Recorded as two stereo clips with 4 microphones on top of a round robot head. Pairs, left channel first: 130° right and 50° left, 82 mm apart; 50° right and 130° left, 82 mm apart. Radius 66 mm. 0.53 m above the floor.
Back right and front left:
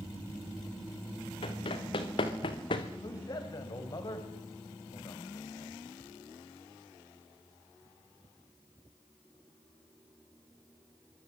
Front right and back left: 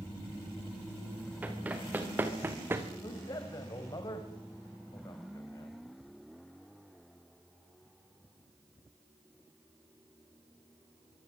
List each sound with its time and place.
1.4 s running footsteps: 155° right, 5 m; by 2.9 s 165° right, 3 m
3.0 s a man speaking: 90° right, 3.5 m